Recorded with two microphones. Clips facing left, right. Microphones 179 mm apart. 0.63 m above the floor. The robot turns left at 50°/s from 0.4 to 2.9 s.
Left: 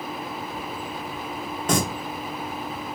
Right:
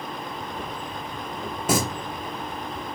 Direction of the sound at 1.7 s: 10° right (ahead or behind).